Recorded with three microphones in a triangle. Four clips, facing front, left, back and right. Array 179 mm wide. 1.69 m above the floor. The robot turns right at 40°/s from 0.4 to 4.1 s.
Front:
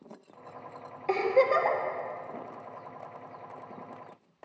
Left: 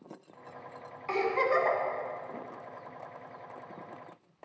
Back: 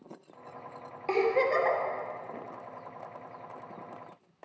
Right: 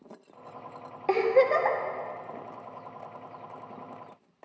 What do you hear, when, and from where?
1.1 s a giggle: 95° right, 1.8 m; by 1.8 s 70° right, 1.8 m